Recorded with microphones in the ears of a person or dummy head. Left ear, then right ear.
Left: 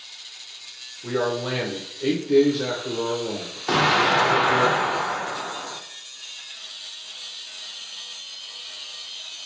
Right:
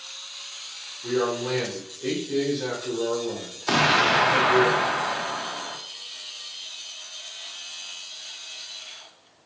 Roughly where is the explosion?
Centre.